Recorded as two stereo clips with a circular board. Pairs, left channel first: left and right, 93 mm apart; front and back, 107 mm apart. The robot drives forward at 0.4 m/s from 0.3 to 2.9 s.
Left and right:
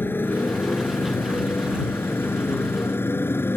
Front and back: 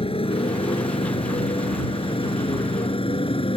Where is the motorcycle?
25° left.